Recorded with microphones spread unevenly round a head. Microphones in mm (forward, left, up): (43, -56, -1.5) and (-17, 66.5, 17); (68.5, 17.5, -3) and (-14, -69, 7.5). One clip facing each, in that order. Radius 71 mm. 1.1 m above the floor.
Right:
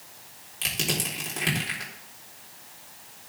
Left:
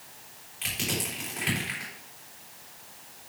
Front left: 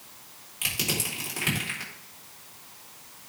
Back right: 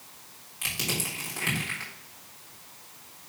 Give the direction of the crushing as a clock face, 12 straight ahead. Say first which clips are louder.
Right 2 dB, front left 1 dB; 1 o'clock.